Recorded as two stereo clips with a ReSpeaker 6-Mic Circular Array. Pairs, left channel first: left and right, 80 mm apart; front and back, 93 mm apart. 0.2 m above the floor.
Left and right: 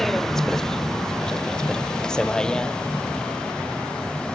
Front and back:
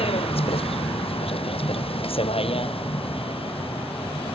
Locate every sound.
0.0 s a vehicle: 5° left; by 4.3 s 10° left